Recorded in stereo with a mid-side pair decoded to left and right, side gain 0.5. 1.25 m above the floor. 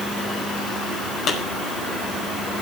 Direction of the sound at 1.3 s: 65° left.